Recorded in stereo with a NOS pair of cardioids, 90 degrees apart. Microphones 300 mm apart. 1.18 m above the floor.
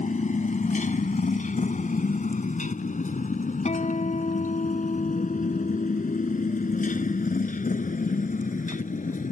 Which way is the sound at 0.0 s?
25° left.